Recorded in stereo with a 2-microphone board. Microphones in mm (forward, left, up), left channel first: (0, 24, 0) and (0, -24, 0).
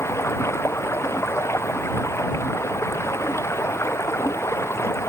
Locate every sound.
0.0 s running water: 80° left